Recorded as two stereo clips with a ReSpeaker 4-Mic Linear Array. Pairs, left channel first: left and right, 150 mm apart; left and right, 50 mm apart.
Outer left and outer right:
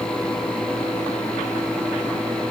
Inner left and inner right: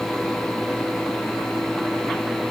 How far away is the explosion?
No explosion in this recording.